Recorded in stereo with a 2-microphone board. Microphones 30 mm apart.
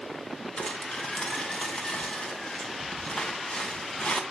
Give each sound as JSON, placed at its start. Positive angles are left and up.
{"t": 0.6, "sound": "crumpling", "side_deg": 35, "distance_m": 2.5}